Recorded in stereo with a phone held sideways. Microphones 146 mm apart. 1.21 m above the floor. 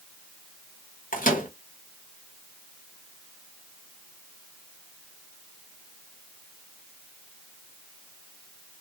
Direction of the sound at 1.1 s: 75° left (ahead or behind).